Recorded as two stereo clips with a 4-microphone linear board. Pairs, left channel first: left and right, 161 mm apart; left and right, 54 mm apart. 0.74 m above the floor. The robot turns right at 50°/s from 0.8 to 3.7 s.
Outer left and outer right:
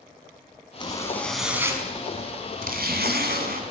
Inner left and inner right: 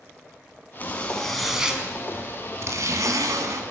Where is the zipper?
150° left, 3.5 m; by 3.6 s 70° right, 3.5 m.